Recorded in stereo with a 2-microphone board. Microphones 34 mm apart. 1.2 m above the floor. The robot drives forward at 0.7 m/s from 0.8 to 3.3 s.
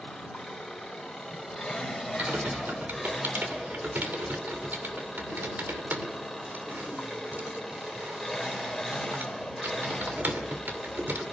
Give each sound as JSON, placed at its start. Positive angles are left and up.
{"t": 0.0, "sound": "an engine running", "side_deg": 0, "distance_m": 5.5}
{"t": 2.2, "sound": "typing on a keyboard", "side_deg": -65, "distance_m": 2.5}